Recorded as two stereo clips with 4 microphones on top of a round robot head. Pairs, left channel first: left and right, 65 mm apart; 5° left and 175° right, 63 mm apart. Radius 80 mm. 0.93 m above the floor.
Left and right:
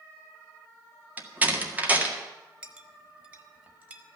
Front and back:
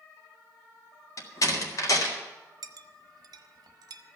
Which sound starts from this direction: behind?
A clink, at 2.6 s.